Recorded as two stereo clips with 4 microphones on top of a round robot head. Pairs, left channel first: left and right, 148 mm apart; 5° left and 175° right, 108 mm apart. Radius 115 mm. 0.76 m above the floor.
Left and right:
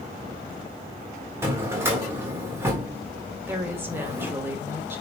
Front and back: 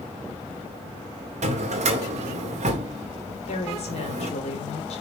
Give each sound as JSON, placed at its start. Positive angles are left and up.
{"t": 1.4, "sound": "a drawer", "azimuth_deg": -165, "distance_m": 1.7}
{"t": 3.5, "sound": "a woman speaking", "azimuth_deg": -15, "distance_m": 3.0}